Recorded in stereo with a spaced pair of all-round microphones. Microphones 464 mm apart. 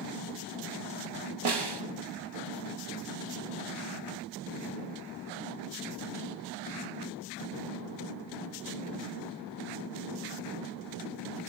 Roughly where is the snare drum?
Right.